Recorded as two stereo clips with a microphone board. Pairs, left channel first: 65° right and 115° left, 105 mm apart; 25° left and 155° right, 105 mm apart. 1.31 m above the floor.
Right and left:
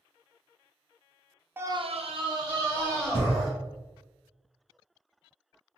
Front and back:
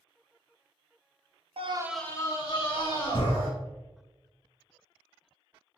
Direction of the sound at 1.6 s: 175° right.